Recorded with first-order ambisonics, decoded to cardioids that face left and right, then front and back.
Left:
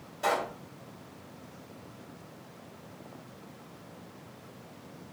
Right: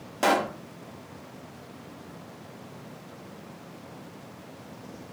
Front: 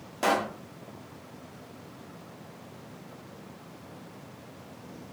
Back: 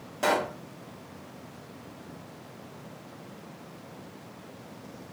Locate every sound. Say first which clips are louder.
0.2 s a pop: right 6 dB, even; 80° right, 1.2 m